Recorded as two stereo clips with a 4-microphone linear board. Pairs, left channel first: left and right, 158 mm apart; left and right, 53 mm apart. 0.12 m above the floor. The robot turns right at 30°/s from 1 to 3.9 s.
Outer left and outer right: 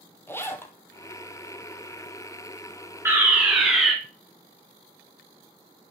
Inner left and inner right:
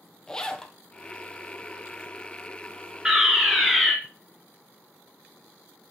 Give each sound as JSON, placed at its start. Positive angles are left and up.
{"t": 0.3, "sound": "a zipper", "side_deg": 15, "distance_m": 1.1}
{"t": 3.0, "sound": "a fire alarm", "side_deg": -15, "distance_m": 3.0}